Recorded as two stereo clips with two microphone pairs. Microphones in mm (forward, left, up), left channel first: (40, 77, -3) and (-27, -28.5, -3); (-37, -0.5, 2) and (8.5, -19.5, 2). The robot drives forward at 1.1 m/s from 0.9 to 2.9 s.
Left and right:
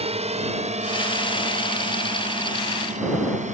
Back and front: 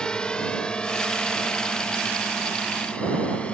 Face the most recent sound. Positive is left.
turn(degrees=-135)